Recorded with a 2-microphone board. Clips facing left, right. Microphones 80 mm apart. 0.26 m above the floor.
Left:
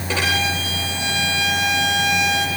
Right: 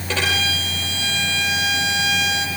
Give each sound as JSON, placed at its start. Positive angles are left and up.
{"t": 0.1, "sound": "a violin", "side_deg": 15, "distance_m": 6.0}